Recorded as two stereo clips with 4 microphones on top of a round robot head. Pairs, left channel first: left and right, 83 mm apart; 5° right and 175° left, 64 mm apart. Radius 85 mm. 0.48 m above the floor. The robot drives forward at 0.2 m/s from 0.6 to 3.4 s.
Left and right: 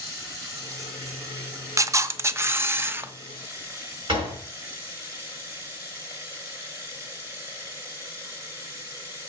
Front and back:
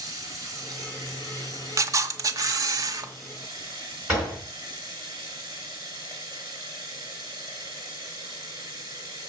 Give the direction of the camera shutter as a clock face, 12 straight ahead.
5 o'clock.